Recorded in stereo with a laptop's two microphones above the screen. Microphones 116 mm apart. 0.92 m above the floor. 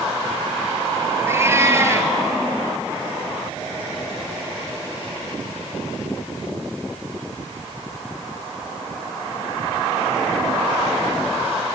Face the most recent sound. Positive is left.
turn(degrees=-25)  # may be behind; listen again after turning